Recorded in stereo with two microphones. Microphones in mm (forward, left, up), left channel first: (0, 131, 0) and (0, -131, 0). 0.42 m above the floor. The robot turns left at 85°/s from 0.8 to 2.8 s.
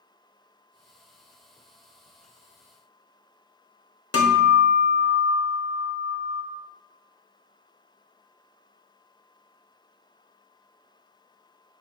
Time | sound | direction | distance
4.1 | a guitar | 70° left (ahead or behind) | 0.5 m